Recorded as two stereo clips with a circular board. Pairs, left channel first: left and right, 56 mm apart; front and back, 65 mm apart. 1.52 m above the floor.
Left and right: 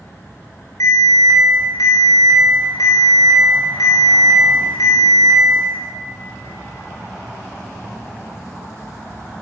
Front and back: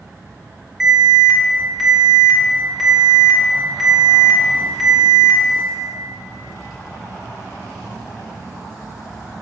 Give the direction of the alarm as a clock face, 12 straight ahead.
9 o'clock.